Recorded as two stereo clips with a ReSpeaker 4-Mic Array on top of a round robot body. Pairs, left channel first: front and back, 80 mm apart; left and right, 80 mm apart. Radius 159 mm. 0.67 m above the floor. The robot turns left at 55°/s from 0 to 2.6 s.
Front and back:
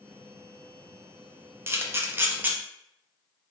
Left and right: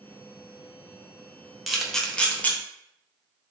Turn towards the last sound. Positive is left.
turn(degrees=130)